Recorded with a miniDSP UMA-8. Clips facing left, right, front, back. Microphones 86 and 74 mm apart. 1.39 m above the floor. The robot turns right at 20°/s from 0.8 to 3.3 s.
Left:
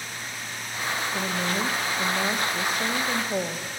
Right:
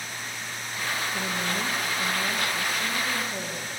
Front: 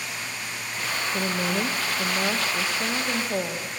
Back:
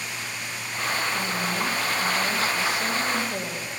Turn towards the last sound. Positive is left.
turn(degrees=60)